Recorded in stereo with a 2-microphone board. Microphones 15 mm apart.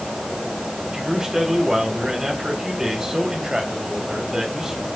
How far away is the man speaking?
About 3.5 m.